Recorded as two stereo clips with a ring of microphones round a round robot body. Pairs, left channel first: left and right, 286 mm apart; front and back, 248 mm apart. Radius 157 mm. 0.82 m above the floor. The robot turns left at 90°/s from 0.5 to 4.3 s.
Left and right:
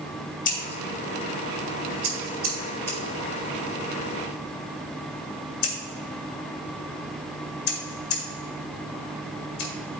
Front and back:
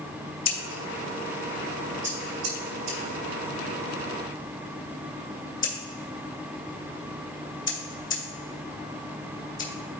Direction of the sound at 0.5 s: 25° left.